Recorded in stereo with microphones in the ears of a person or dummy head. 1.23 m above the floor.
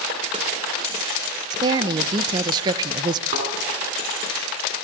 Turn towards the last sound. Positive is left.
turn(degrees=-45)  # may be behind; listen again after turning